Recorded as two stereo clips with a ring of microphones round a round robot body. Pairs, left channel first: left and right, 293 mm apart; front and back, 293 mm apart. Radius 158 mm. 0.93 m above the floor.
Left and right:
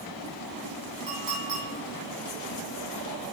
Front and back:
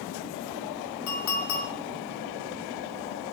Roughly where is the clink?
Ahead right.